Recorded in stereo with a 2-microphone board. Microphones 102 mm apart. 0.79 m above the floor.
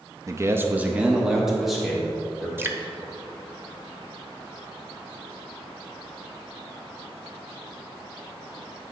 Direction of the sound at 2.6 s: 25° right (ahead or behind).